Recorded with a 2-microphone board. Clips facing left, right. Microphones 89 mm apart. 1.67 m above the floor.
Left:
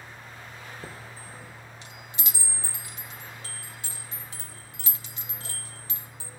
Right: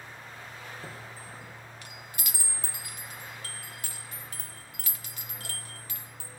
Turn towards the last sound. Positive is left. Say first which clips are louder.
# left 1 dB
turn(degrees=25)  # may be behind; listen again after turning